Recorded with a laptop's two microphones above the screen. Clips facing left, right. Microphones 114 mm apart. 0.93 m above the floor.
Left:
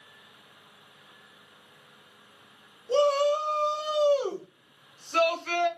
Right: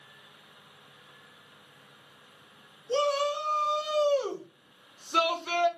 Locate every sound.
2.9 s a shout: 40° left (ahead or behind), 1.0 m; by 5.7 s 25° right (ahead or behind), 0.9 m